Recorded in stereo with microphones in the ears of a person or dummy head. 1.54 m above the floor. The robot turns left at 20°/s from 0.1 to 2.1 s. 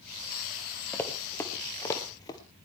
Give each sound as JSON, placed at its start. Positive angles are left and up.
{"t": 0.9, "sound": "running footsteps", "side_deg": 10, "distance_m": 1.8}